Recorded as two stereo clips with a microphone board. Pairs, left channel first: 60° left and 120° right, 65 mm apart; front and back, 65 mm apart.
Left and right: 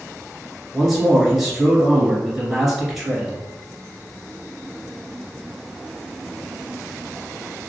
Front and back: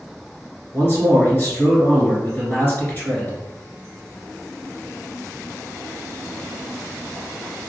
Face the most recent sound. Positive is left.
turn(degrees=-30)